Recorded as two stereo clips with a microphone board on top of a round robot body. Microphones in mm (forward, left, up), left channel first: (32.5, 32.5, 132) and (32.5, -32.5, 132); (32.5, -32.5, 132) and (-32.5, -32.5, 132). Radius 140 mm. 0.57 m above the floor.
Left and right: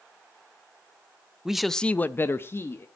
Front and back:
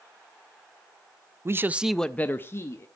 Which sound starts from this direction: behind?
A man speaking, at 1.4 s.